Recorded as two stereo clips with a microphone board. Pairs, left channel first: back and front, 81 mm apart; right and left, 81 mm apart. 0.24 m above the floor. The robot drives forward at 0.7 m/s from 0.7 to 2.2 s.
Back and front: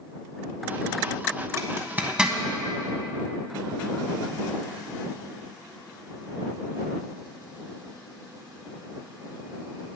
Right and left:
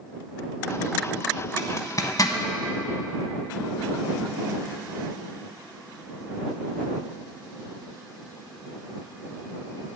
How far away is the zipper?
About 0.9 m.